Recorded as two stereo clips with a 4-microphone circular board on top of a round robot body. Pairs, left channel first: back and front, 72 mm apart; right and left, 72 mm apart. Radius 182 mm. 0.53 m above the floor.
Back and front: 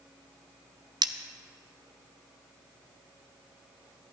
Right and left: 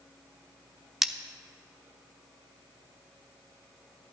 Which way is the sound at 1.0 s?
5° left.